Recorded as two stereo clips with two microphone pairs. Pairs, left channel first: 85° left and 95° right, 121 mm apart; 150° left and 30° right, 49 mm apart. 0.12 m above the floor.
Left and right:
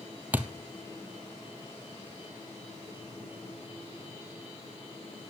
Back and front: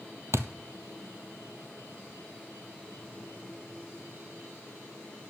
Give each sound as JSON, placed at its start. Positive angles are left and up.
{"t": 0.3, "sound": "a thud", "azimuth_deg": -15, "distance_m": 0.9}